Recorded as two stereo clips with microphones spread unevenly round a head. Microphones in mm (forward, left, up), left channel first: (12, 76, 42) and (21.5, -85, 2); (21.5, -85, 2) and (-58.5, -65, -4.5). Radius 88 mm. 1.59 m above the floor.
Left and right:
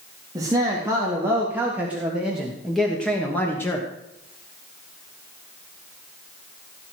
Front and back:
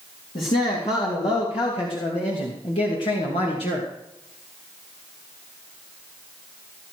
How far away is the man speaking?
About 3.5 m.